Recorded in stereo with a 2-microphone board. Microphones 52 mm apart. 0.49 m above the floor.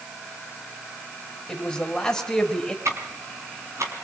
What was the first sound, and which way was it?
A man speaking, 5° left (ahead or behind).